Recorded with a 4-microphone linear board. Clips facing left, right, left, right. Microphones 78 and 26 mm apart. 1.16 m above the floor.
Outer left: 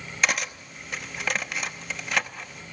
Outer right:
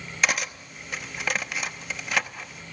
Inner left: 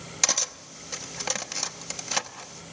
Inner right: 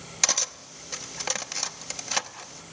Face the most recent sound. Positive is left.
turn(degrees=0)  # may be behind; listen again after turning